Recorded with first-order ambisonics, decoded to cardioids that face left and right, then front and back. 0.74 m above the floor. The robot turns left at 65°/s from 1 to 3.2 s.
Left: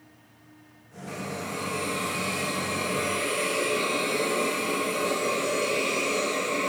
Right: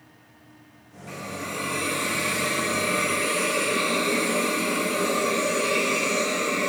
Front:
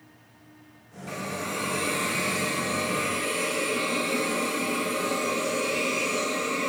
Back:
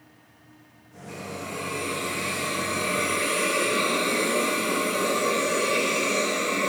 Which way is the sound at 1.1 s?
15° right.